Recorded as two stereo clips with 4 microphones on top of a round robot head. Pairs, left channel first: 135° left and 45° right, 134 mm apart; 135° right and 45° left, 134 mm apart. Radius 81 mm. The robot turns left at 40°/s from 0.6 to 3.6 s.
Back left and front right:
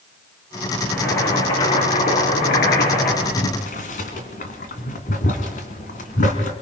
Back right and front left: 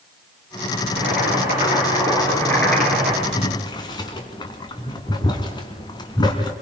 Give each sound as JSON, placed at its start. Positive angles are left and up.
{"t": 0.8, "sound": "boiling", "azimuth_deg": -140, "distance_m": 7.5}
{"t": 3.2, "sound": "boiling", "azimuth_deg": 180, "distance_m": 2.0}